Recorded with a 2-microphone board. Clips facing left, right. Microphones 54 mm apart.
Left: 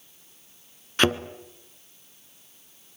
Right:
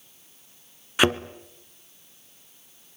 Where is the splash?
I don't hear a splash.